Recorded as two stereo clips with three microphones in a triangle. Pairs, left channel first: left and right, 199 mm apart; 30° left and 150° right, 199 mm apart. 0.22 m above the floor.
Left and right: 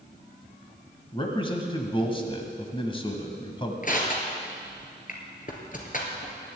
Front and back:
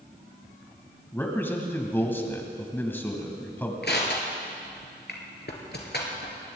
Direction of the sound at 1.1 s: 95° left.